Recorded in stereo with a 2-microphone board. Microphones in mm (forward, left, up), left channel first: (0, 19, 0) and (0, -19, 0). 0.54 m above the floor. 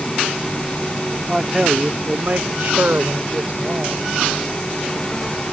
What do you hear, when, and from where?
1.3 s a man speaking: 5° right (ahead or behind); by 4.1 s 65° right (ahead or behind)